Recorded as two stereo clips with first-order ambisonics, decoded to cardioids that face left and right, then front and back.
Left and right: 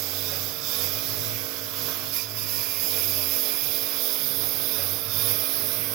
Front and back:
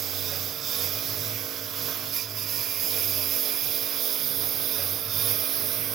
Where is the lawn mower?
120° right; by 5.9 s 125° right.